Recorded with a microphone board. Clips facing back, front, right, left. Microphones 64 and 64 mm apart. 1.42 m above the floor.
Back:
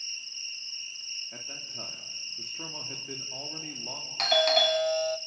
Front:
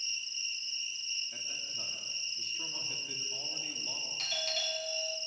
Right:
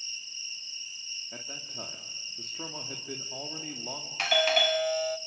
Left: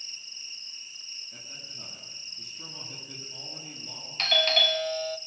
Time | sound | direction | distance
0.0 | an insect | 120° left | 6 m
1.3 | a man speaking | 120° right | 2.5 m
4.2 | a doorbell | 170° right | 0.6 m